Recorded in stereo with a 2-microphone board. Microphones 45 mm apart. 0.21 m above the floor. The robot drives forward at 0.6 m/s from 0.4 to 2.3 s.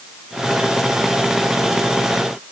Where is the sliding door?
No sliding door in this recording.